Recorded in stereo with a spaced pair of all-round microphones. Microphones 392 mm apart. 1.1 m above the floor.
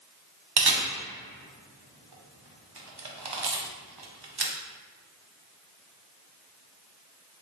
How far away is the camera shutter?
About 0.6 m.